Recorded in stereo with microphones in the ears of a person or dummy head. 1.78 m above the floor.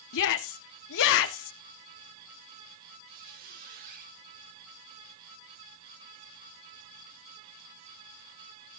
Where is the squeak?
50° right (ahead or behind), 3.5 m.